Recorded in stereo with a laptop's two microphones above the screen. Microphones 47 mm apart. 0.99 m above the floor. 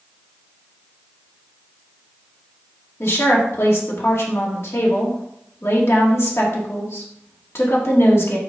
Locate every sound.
3.0 s a woman speaking: 65° left (ahead or behind), 2.5 m